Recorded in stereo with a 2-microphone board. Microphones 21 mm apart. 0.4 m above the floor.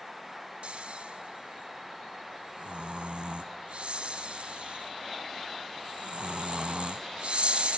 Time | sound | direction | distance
0.6 | snoring | 80° right | 0.9 m